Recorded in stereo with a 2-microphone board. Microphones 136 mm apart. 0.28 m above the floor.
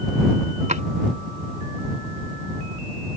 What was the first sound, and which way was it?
A drawer, 65° right (ahead or behind).